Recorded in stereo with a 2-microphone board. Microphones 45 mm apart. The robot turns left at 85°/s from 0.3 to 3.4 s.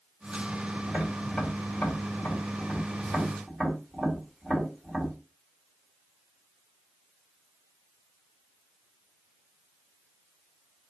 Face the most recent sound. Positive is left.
turn(degrees=5)  # may be behind; listen again after turning